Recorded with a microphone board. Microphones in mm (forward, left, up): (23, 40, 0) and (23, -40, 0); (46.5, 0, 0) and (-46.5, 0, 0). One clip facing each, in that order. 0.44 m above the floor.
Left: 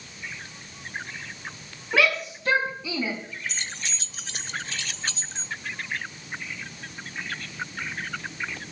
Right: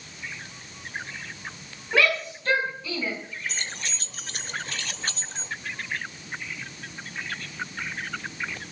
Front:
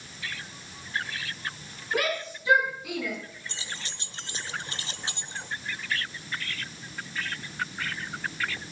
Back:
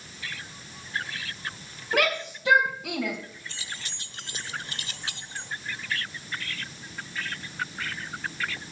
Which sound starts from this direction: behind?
A shout, at 1.9 s.